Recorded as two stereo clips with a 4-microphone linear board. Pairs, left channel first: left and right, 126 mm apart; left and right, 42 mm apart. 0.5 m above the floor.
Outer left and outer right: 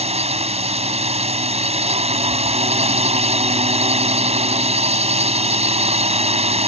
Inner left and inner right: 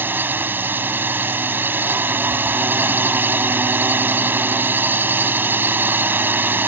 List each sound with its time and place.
0.0 s a drone: 55° right (ahead or behind)